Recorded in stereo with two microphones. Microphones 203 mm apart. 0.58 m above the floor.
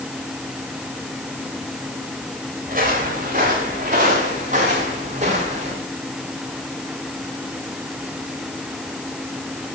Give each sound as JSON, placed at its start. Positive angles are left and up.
{"t": 2.7, "sound": "footsteps", "side_deg": -40, "distance_m": 7.5}